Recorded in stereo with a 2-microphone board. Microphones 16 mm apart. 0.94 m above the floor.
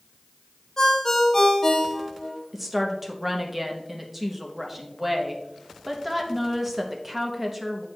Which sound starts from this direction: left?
A ringtone, at 0.8 s.